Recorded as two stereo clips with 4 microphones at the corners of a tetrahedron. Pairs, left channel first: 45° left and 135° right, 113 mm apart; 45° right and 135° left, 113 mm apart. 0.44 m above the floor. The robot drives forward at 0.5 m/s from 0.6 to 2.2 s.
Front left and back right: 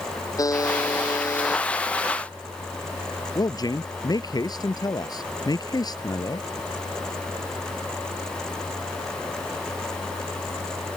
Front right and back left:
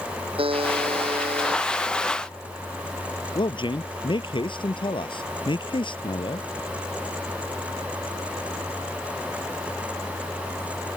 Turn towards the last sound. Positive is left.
turn(degrees=-5)